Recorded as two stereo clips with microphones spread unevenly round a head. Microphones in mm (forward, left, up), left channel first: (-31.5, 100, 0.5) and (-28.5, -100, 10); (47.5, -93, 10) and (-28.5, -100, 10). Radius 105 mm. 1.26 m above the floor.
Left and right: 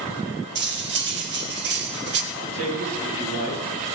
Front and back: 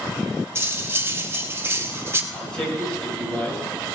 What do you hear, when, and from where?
0.6 s cutlery clinking: 120° right, 1.4 m
2.3 s a man speaking: 75° right, 7.5 m